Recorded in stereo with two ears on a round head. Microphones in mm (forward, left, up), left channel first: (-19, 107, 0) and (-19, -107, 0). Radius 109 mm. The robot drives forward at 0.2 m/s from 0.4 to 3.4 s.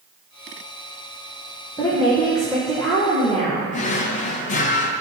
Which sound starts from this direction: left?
A drawer, at 3.7 s.